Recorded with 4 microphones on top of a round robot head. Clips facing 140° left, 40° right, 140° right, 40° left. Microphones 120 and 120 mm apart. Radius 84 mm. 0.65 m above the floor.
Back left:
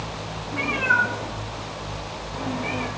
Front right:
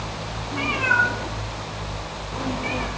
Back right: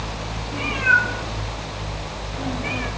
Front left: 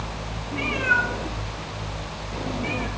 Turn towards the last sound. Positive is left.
turn(degrees=15)